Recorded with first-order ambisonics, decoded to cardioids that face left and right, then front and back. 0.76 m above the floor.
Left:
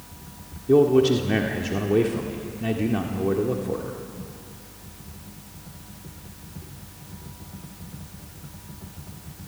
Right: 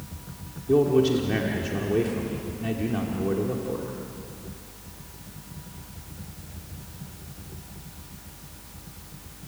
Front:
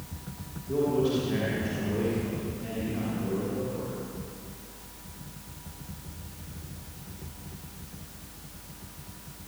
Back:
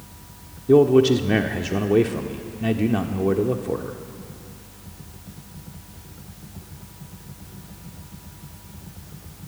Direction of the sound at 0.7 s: 165° left.